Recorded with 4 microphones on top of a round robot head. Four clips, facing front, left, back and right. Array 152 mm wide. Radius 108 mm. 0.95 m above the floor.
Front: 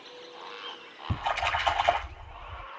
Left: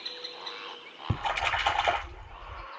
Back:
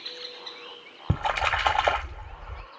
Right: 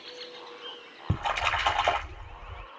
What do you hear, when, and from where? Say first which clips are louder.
1.1 s a splash: right 1 dB, back 3 dB; 170° right, 5.5 m